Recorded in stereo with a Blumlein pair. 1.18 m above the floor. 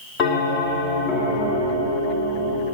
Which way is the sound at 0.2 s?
30° left.